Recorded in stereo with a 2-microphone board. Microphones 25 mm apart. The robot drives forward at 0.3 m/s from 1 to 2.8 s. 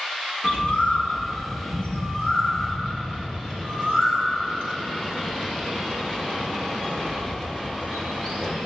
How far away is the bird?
About 1.1 m.